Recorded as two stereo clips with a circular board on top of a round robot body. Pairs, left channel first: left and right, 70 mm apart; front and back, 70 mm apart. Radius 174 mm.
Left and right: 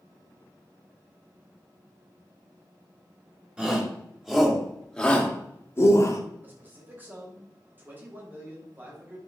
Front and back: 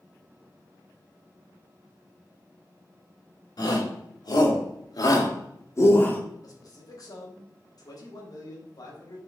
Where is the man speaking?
30° right, 3.5 m.